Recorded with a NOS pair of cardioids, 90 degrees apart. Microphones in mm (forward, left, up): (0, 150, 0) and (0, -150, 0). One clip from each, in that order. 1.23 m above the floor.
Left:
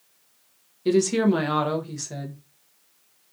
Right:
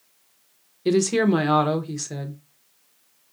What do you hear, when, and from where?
0.8 s a woman speaking: 15° right, 0.8 m